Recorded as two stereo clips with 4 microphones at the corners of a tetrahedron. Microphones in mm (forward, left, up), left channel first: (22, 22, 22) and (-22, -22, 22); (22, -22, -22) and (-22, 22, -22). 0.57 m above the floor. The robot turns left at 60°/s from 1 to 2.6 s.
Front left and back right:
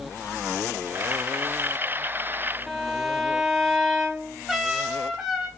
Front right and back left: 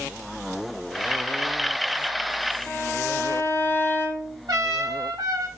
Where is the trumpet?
145° left, 0.8 m.